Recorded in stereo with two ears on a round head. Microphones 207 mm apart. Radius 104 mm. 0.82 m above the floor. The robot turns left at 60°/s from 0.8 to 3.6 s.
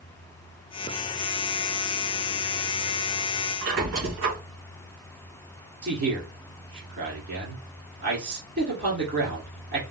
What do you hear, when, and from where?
3.6 s a squeak: 60° right (ahead or behind), 2.5 m
5.8 s a man speaking: 50° right (ahead or behind), 2.0 m